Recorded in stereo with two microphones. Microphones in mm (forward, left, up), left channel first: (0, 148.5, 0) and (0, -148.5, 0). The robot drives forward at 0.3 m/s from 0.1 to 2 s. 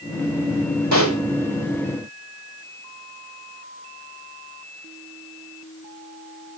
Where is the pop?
65° right (ahead or behind), 3.5 m; by 1.2 s 70° right (ahead or behind), 3.5 m.